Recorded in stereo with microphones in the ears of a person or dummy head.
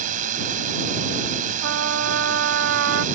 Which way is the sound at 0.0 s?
50° right (ahead or behind).